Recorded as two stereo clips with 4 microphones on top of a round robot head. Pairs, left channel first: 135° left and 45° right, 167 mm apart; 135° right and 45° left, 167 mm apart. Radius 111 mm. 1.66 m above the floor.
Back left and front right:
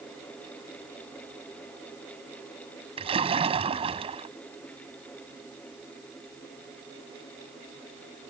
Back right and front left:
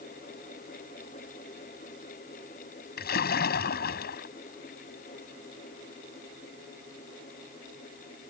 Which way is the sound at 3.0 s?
100° right.